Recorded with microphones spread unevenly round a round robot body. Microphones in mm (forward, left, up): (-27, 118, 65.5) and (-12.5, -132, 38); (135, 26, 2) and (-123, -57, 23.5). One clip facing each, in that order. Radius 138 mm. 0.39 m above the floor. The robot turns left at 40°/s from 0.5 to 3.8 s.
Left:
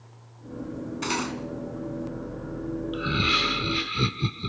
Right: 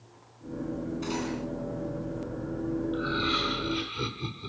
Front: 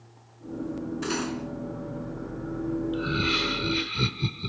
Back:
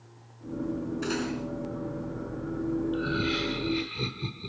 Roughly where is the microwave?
I don't hear a microwave.